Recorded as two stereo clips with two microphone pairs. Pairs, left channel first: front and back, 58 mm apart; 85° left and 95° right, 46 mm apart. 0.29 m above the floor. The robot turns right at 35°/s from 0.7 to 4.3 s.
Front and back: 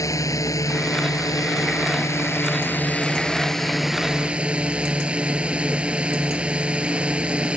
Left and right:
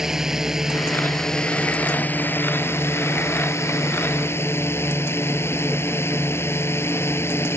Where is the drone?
15° right; by 7.6 s 110° left.